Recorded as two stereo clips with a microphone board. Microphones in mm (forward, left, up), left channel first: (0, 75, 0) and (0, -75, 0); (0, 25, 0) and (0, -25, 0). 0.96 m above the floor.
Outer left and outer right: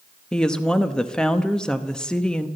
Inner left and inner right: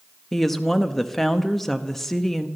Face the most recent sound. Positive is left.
turn(degrees=5)  # may be behind; listen again after turning